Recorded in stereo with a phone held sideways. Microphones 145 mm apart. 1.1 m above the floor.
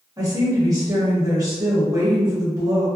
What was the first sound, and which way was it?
A woman speaking, 25° right (ahead or behind).